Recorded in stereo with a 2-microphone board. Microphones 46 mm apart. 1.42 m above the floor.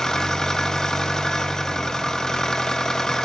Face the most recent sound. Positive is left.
turn(degrees=15)  # may be behind; listen again after turning